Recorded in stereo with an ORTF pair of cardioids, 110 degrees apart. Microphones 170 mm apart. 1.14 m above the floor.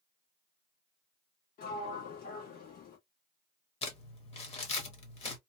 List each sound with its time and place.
1.6 s a sliding door: 65° left, 1.4 m
3.8 s crumpling: 35° left, 1.2 m